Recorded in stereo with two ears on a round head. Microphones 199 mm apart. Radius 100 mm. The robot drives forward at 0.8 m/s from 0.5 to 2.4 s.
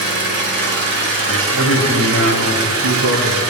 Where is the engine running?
50° right (ahead or behind), 4.5 m; by 3.5 s 70° right (ahead or behind), 3.5 m.